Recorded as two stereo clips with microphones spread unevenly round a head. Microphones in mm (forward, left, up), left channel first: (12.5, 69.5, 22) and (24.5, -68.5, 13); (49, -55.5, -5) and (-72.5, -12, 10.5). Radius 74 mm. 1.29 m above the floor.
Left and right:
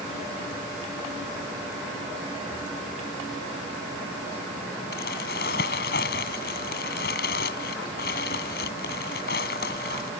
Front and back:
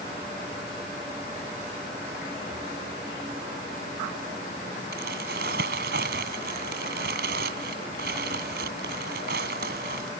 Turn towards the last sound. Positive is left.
turn(degrees=130)